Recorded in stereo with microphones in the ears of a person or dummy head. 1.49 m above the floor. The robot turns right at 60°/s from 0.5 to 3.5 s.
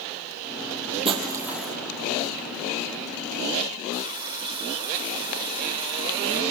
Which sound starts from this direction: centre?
A running tap, at 3.9 s.